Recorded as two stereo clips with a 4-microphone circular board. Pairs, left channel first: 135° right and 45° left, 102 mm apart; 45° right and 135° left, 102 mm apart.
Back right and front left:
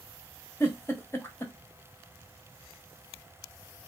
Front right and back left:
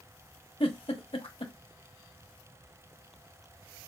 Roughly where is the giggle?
Right.